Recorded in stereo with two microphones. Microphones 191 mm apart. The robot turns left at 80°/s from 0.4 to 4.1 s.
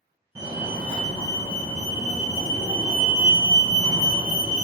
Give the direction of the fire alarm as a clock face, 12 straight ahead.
5 o'clock.